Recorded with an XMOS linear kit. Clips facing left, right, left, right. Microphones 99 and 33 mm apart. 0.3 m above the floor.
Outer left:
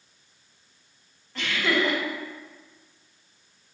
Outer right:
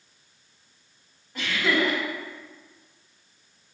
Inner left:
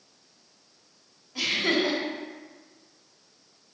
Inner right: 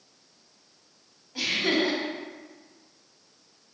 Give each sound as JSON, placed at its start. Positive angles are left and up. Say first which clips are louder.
{"t": 1.4, "sound": "laughter", "louder": "outer right 1 dB, even", "side_deg": -10, "distance_m": 1.5}